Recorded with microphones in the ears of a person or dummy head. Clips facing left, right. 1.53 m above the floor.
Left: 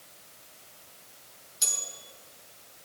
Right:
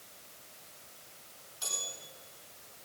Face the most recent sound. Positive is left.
turn(degrees=35)  # may be behind; listen again after turning